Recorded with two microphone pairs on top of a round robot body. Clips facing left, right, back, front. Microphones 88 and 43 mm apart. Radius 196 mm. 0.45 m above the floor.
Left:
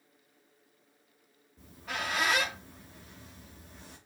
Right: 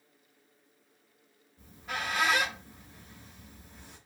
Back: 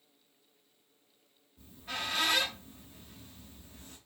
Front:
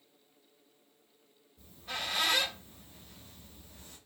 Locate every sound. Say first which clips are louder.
1.6 s a squeak: even, even; 105° left, 0.6 m